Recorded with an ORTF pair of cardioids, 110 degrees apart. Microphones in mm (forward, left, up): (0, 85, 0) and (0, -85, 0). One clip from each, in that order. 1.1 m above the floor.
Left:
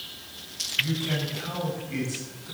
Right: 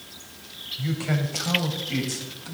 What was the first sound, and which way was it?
A man speaking, 45° right.